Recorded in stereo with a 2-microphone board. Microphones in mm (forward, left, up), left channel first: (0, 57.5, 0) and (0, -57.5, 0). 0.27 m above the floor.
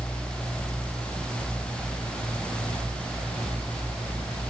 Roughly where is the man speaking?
I don't hear a man speaking.